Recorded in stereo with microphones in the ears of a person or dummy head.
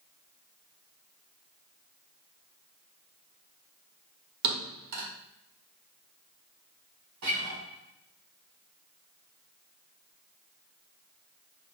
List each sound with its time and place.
4.4 s a thud: 55° right (ahead or behind), 0.9 m
7.2 s a guitar: 60° right (ahead or behind), 1.5 m